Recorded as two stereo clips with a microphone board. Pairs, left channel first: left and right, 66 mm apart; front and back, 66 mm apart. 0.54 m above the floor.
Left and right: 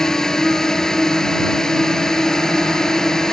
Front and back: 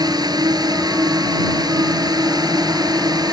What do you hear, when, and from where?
0.0 s a drone: 170° left